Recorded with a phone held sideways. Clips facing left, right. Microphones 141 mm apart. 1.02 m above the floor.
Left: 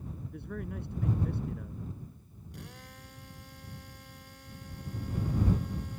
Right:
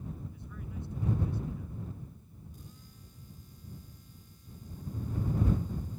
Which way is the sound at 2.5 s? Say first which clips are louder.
Left 6 dB; 90° left.